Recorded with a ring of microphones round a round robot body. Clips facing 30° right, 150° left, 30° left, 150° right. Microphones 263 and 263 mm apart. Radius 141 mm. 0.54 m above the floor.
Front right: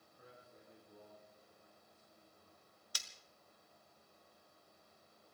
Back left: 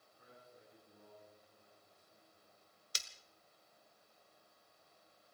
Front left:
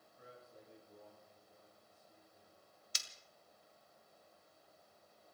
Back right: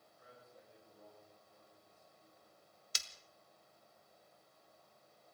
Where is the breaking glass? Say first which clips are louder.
Back left 3 dB, back right 3 dB; 145° right, 1.2 m.